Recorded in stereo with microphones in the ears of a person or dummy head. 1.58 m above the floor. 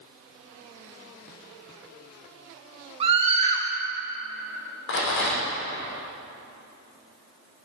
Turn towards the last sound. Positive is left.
turn(degrees=65)  # may be behind; listen again after turning